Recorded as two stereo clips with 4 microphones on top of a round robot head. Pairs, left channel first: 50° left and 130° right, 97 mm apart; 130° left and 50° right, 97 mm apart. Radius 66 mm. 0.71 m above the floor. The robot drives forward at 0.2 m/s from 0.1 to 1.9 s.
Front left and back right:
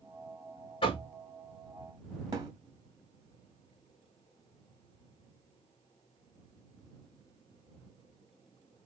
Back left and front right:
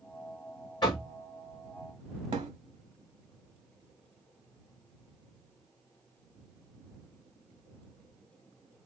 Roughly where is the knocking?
Left.